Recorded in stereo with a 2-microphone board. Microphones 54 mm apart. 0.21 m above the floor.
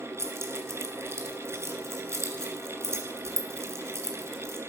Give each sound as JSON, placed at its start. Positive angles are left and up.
{"t": 0.2, "sound": "keys jangling", "side_deg": -50, "distance_m": 2.0}